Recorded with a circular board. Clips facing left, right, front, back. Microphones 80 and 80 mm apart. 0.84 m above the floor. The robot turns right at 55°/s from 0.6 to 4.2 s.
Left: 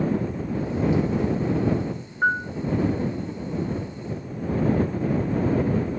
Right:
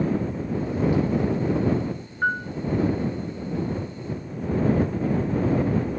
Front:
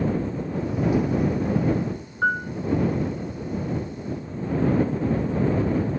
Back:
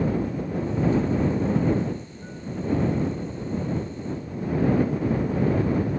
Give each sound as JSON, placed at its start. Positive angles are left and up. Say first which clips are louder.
{"t": 2.2, "sound": "a piano", "louder": "left 2 dB, front 14 dB", "azimuth_deg": 10}